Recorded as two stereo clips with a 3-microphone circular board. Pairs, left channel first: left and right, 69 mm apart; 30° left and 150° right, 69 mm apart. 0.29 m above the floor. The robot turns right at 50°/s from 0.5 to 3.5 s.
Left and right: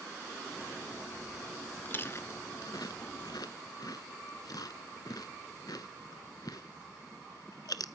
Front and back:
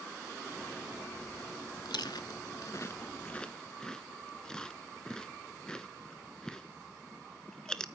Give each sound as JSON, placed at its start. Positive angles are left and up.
{"t": 1.9, "sound": "chewing", "azimuth_deg": 25, "distance_m": 0.6}